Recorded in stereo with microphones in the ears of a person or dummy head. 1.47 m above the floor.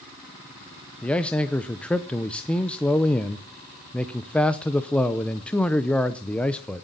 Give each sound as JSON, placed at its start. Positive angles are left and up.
{"t": 1.0, "sound": "a man speaking", "side_deg": 10, "distance_m": 0.7}